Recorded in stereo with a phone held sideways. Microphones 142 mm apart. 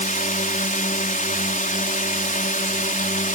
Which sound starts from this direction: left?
A drone, at 0.0 s.